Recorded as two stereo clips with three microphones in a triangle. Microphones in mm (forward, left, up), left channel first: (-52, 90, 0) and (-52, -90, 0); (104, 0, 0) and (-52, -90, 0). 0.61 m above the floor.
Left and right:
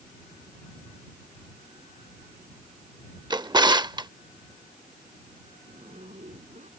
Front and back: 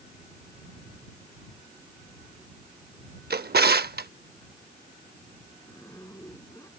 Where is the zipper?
45° right.